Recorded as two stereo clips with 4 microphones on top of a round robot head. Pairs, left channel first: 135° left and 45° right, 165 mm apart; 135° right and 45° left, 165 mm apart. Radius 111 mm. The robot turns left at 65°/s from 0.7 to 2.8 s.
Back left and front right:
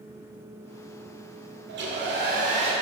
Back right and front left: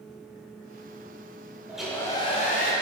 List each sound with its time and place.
1.7 s a hair dryer: 35° right, 2.0 m; by 2.7 s 105° right, 2.0 m